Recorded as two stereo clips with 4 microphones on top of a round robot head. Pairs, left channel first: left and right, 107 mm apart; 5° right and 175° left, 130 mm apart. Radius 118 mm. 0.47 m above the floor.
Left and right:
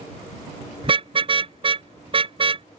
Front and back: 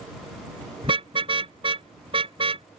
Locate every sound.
0.8 s a car horn: 125° right